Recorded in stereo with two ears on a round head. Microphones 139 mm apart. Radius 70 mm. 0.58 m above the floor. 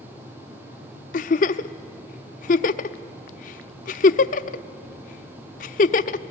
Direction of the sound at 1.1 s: 60° left (ahead or behind).